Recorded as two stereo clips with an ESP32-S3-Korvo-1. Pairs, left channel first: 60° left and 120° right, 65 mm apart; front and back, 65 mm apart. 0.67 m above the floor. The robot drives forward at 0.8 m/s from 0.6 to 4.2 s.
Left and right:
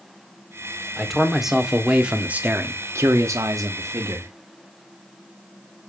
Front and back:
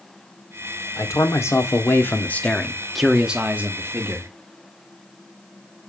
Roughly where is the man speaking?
Ahead right.